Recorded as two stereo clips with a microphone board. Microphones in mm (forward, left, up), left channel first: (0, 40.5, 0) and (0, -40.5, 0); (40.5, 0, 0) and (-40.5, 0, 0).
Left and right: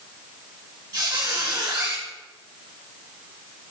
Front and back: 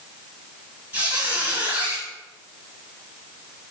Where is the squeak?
110° right, 1.2 m.